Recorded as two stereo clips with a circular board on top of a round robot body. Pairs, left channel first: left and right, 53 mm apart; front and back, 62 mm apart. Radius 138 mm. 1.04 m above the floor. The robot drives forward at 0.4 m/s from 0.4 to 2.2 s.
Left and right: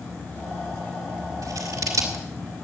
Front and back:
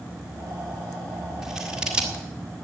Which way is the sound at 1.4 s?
100° right.